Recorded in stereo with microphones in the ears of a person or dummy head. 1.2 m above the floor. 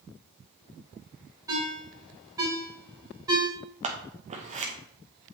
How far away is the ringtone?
About 3.5 m.